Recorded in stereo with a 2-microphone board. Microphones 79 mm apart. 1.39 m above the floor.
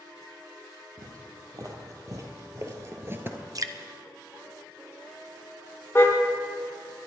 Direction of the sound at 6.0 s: 30° left (ahead or behind).